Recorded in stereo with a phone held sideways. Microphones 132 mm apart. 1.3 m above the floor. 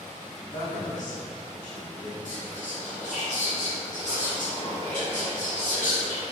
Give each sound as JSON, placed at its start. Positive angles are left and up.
{"t": 0.4, "sound": "a man speaking", "side_deg": 65, "distance_m": 1.3}
{"t": 2.2, "sound": "whispering", "side_deg": 65, "distance_m": 1.4}